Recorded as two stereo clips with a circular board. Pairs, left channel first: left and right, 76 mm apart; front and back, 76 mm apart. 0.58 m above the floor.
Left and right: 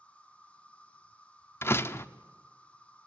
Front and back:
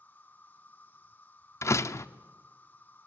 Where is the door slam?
40° left, 0.5 m.